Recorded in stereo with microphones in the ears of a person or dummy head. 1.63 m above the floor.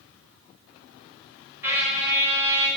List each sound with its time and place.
1.6 s a trumpet: 15° right (ahead or behind), 1.2 m